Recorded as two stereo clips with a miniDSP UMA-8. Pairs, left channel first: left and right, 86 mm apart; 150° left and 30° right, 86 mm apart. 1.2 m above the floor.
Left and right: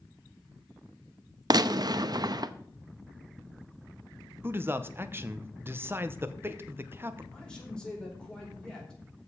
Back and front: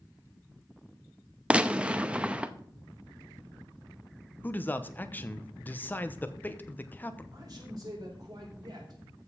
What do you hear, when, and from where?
1.5 s a gunshot: 105° right, 0.6 m
4.4 s a man speaking: 145° right, 0.9 m
7.3 s a man speaking: 10° left, 4 m